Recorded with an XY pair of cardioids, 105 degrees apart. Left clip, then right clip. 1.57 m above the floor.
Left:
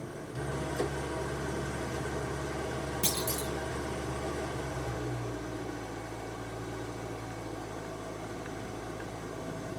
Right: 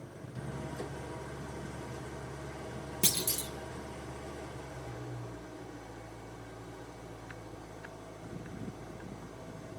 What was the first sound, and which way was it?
An engine running, 50° left.